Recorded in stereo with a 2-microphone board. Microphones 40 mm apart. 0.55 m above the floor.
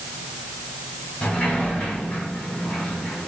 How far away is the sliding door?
About 1.6 m.